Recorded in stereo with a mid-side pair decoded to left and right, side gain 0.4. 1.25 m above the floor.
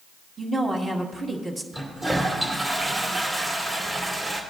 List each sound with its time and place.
0.4 s a woman speaking: 35° right, 2.0 m
1.7 s a toilet flushing: 30° right, 2.5 m